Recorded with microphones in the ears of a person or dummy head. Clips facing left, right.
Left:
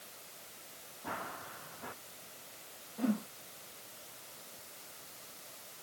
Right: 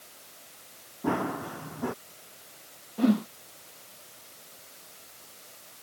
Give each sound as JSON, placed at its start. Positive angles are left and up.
{"t": 1.0, "sound": "running footsteps", "side_deg": -65}
{"t": 3.0, "sound": "a whoosh", "side_deg": -65}